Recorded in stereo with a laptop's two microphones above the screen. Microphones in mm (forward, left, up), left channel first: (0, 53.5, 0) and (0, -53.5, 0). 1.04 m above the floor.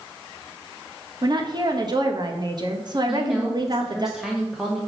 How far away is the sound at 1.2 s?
About 1.0 m.